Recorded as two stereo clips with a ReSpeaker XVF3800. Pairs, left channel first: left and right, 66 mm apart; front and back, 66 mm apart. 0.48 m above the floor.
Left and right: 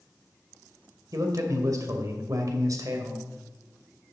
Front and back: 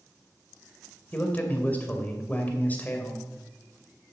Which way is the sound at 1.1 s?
65° right.